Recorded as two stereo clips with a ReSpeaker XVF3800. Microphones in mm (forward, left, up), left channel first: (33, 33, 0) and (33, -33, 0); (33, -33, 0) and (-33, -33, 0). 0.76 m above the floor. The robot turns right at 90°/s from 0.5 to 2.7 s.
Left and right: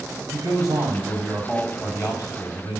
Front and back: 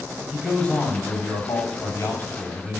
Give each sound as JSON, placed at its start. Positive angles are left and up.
{"t": 0.3, "sound": "a man speaking", "azimuth_deg": -95, "distance_m": 5.0}